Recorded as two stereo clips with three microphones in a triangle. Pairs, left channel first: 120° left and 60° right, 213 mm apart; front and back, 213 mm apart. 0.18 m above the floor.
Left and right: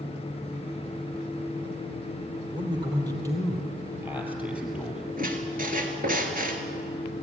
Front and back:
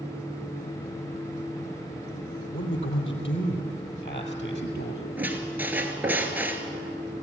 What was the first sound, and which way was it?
A man speaking, 5° left.